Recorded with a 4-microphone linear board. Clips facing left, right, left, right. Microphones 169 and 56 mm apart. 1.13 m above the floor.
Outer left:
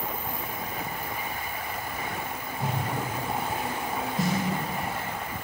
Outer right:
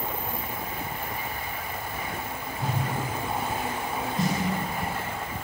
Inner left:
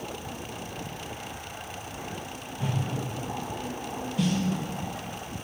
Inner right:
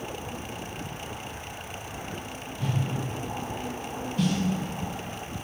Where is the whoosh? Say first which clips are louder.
Even, even; 15° left (ahead or behind), 1.3 m.